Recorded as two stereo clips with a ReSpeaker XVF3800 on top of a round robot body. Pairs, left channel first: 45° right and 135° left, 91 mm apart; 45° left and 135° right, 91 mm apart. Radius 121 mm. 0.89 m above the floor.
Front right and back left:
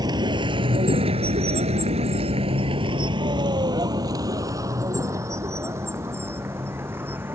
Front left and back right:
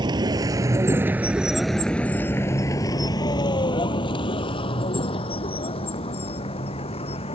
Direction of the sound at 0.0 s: Straight behind.